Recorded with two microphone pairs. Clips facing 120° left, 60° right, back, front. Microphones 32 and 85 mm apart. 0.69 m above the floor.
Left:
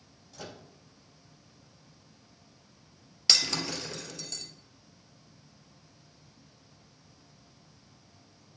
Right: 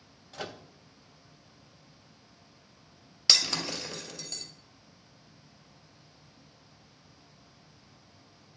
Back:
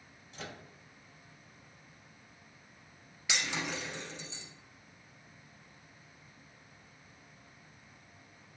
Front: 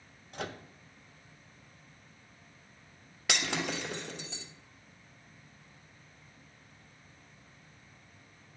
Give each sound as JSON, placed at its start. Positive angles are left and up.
{"t": 0.3, "sound": "a microwave", "azimuth_deg": -25, "distance_m": 0.5}
{"t": 3.3, "sound": "breaking glass", "azimuth_deg": 25, "distance_m": 1.8}